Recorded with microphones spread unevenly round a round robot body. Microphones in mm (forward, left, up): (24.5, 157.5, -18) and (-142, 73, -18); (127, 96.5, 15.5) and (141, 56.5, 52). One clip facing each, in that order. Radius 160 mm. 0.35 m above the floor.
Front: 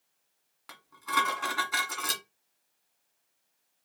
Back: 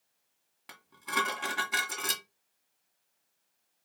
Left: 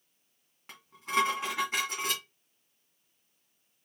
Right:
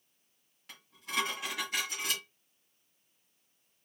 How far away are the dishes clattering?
About 2.5 m.